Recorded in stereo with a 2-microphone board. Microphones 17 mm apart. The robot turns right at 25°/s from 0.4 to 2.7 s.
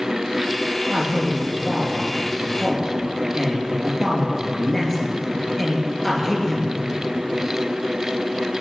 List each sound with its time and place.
0.9 s a man speaking: 25° right (ahead or behind), 3.5 m; by 6.7 s 15° left (ahead or behind), 3.5 m